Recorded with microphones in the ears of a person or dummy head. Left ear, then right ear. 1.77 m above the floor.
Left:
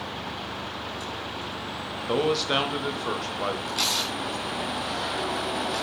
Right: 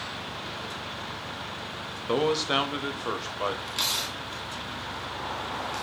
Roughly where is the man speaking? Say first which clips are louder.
Left 1 dB; centre.